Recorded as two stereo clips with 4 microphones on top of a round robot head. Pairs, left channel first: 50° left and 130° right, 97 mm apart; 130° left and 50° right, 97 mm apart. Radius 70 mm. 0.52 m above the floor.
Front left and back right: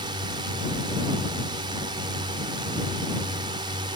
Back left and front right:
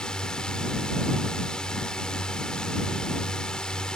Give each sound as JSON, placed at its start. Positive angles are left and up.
{"t": 0.0, "sound": "a drone", "azimuth_deg": -150}